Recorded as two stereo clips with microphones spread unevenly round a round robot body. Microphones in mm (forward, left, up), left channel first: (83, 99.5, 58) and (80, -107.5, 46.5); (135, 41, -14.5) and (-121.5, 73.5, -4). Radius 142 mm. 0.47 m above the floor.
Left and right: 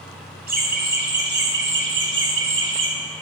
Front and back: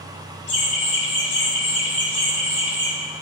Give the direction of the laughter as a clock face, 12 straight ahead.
2 o'clock.